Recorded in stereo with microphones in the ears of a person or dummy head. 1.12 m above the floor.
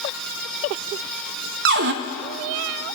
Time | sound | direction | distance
1.6 | a cupboard door | 60° right (ahead or behind) | 0.6 m